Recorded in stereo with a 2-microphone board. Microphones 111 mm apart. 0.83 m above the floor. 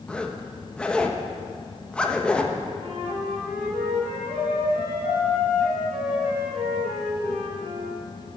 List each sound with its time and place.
0.1 s a zipper: 10° left (ahead or behind), 0.8 m
2.8 s a flute: 65° right (ahead or behind), 3 m